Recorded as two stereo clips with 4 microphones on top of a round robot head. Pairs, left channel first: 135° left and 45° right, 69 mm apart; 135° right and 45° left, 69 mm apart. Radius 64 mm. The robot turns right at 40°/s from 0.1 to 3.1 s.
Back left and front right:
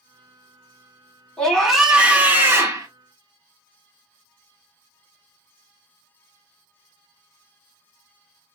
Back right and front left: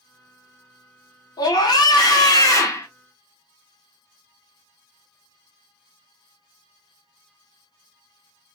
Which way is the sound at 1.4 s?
145° right.